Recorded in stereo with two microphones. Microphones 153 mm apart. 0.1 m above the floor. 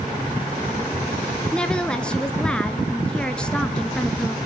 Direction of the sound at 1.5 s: 5° left (ahead or behind).